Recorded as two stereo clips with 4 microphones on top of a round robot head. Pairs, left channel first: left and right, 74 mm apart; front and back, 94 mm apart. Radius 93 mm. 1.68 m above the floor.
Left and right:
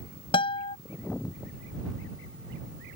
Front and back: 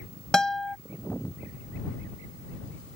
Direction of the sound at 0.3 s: 80° left.